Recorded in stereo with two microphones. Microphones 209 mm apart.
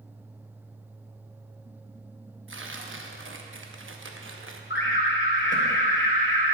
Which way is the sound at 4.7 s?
65° left (ahead or behind).